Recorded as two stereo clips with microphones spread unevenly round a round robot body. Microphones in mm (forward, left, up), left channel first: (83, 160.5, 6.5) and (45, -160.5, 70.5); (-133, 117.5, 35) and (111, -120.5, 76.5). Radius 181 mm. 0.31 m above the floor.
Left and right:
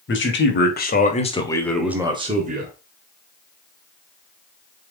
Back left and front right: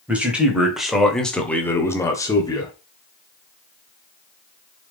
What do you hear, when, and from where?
0.1 s a man speaking: 45° left, 3 m; by 2.7 s 160° right, 1.9 m